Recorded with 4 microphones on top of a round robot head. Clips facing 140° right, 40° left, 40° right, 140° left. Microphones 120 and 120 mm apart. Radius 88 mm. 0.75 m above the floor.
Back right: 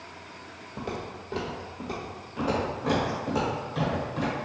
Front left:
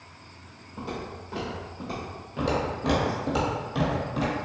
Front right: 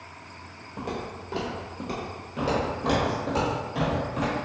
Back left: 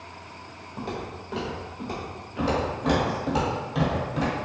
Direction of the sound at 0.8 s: 110° right.